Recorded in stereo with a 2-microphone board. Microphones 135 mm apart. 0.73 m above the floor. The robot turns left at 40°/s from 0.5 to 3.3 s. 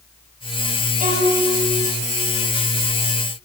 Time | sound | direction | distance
1.0 | a violin | 80° right | 5 m